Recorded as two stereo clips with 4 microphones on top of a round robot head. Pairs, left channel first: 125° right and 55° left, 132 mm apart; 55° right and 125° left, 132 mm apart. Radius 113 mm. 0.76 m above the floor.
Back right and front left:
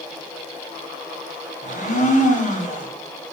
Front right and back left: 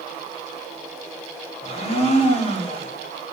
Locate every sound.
1.6 s a blender: 95° right, 2 m